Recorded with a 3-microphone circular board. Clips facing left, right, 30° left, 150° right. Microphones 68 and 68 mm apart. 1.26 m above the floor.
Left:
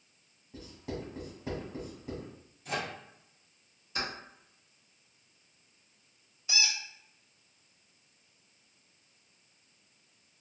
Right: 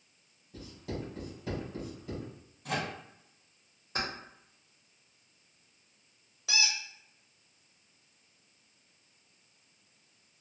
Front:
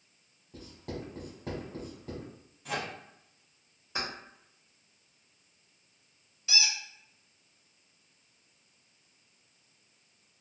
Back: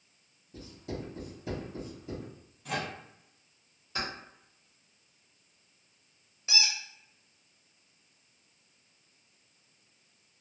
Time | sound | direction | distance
0.5 | writing | 30° left | 1.5 m
2.6 | a microwave | 60° right | 1.3 m
4.0 | keys jangling | 40° right | 1.1 m
6.5 | a squeak | 85° right | 0.8 m